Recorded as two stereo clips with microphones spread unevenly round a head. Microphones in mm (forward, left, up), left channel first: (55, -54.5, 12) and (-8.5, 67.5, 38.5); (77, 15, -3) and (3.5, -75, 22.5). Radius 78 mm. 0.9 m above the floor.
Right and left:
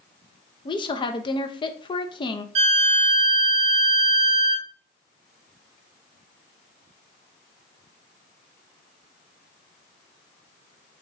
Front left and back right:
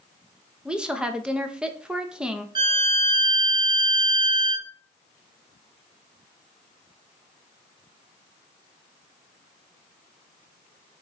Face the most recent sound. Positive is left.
turn(degrees=170)